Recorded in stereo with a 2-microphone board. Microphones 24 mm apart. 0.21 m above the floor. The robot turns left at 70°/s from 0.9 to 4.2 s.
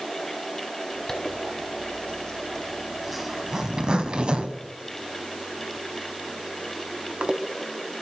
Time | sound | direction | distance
1.1 | a zipper | 30° left (ahead or behind) | 1.0 m